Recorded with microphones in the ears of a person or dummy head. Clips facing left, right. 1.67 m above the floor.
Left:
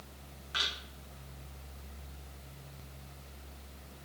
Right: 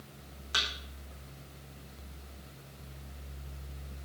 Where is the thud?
55° right (ahead or behind), 6 m.